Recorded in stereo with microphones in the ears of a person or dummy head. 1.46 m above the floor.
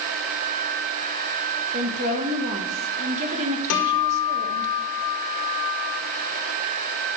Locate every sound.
1.7 s a woman speaking: 45° right (ahead or behind), 2.0 m
3.7 s a guitar: 65° left (ahead or behind), 2 m